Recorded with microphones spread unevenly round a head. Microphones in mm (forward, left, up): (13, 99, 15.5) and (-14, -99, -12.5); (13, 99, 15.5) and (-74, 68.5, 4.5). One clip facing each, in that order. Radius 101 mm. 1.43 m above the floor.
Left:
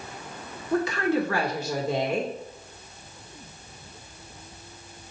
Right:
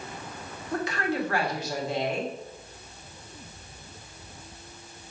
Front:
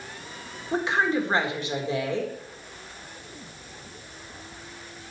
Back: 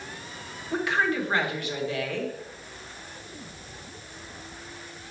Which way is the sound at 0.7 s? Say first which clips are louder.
Left 5 dB, front 2 dB; 85° left.